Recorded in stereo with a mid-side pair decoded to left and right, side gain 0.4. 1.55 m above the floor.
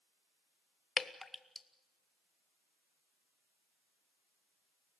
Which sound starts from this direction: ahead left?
Dripping, at 1.0 s.